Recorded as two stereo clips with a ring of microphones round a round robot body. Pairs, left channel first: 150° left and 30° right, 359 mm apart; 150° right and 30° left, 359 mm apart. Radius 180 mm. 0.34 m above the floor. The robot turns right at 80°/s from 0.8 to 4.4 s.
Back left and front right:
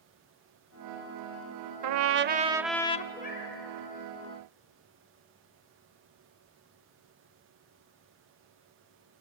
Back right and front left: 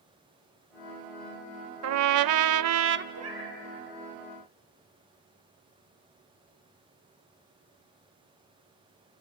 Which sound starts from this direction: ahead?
A trumpet, at 1.8 s.